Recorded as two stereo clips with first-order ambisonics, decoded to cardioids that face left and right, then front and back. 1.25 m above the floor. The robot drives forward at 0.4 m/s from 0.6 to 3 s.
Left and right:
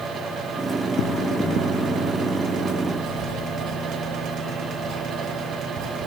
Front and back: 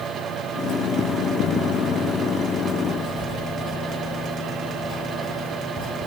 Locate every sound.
3.0 s writing: 105° right, 3 m